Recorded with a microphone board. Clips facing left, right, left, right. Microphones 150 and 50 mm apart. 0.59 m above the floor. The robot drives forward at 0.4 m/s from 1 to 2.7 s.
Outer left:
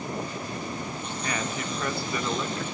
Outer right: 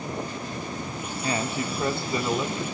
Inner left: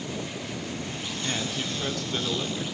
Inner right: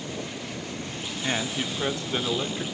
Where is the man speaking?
30° right (ahead or behind), 1.4 m; by 2.6 s 25° right (ahead or behind), 1.8 m.